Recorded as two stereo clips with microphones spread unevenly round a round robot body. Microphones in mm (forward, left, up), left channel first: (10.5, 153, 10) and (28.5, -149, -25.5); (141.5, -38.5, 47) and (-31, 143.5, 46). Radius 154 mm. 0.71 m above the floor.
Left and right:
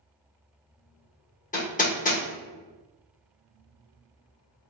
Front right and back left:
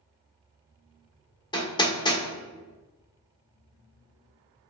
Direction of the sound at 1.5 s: 25° left.